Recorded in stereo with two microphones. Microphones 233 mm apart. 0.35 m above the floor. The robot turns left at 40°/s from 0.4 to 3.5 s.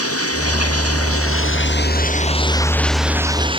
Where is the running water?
105° left; by 3.6 s 20° right.